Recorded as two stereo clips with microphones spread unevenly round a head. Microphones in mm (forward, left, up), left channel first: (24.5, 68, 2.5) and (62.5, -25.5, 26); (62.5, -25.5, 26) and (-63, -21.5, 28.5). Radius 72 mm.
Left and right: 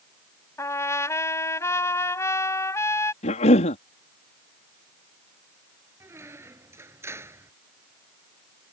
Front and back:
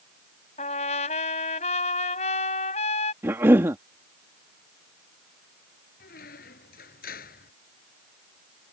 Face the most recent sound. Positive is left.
turn(degrees=-5)